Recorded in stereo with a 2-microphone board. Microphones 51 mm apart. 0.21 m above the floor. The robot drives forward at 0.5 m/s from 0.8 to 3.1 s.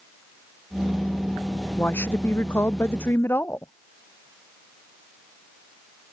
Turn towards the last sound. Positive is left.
turn(degrees=50)  # may be behind; listen again after turning